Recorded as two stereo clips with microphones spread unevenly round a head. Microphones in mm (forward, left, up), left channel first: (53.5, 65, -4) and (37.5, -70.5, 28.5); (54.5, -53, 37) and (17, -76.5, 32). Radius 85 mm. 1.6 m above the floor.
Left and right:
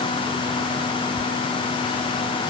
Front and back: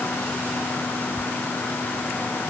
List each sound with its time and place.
Only background noise.